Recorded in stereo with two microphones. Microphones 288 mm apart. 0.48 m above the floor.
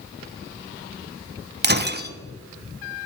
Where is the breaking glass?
35° right (ahead or behind), 0.9 m.